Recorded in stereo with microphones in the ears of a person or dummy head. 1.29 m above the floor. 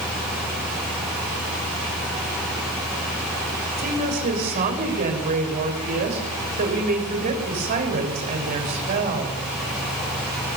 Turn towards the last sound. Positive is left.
turn(degrees=-45)  # may be behind; listen again after turning